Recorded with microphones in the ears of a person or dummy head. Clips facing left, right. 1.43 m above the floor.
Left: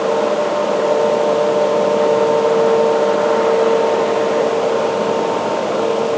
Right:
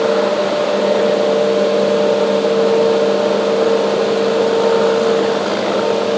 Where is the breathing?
I don't hear breathing.